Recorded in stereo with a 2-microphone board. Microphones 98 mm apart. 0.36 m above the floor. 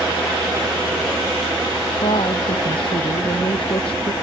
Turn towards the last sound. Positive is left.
turn(degrees=65)  # may be behind; listen again after turning